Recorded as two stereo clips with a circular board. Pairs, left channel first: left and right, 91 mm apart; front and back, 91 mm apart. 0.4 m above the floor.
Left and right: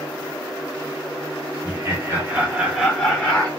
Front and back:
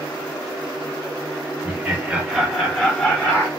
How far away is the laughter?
About 1.4 m.